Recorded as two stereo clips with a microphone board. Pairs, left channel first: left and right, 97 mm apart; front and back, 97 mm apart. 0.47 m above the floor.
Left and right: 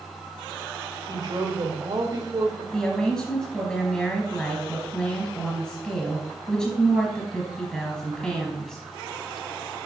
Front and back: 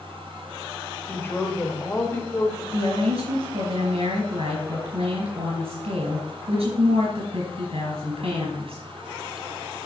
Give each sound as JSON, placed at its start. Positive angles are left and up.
{"t": 1.1, "sound": "a woman speaking", "azimuth_deg": -65, "distance_m": 1.7}
{"t": 2.7, "sound": "a woman speaking", "azimuth_deg": 170, "distance_m": 4.0}